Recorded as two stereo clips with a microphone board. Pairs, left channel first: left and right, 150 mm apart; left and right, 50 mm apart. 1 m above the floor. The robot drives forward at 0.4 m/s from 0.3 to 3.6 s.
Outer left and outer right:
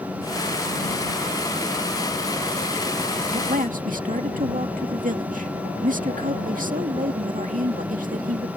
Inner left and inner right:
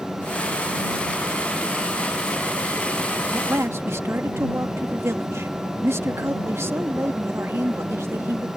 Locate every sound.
3.3 s a man speaking: 60° right (ahead or behind)